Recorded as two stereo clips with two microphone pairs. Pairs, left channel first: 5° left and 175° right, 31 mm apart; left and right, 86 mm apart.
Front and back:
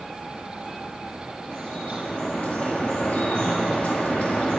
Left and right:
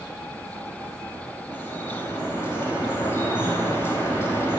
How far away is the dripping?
About 1.7 m.